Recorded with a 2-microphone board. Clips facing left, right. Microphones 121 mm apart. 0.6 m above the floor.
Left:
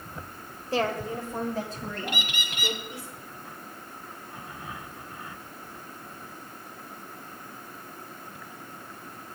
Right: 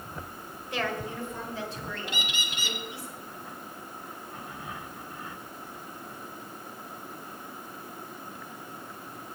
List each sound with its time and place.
0.7 s a woman speaking: 35° left (ahead or behind), 2 m; by 3.1 s 45° left (ahead or behind), 5.5 m
2.1 s a bird: 60° left (ahead or behind), 1.5 m